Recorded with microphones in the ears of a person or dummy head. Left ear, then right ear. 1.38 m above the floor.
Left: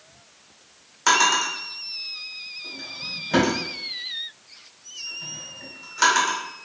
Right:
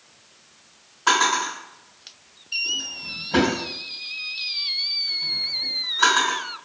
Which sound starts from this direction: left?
A drawer, at 1.1 s.